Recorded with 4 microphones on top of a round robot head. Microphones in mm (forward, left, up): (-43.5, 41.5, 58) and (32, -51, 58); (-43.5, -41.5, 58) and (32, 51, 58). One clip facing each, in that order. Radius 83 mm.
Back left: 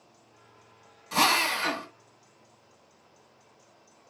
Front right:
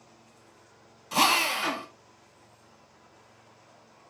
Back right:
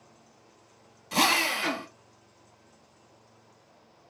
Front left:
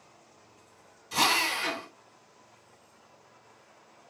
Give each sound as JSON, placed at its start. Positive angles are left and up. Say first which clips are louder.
{"t": 1.1, "sound": "a drill", "louder": "even, back right 2 dB", "azimuth_deg": -130, "distance_m": 1.7}